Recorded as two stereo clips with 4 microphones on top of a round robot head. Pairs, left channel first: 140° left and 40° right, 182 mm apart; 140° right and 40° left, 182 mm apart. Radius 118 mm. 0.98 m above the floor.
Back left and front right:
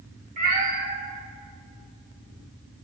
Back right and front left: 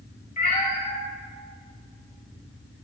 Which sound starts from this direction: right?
A cat meowing, at 0.4 s.